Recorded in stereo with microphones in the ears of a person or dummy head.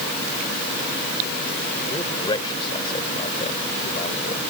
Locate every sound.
1.9 s a man speaking: 25° left (ahead or behind); by 4.4 s 45° left (ahead or behind)